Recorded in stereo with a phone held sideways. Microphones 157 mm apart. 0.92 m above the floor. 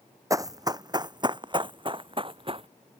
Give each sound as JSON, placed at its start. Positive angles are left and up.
{"t": 0.3, "sound": "running footsteps", "side_deg": -20}